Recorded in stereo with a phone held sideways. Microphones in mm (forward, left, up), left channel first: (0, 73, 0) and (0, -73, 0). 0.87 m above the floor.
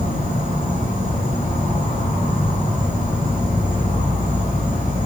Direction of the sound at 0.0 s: 65° left (ahead or behind).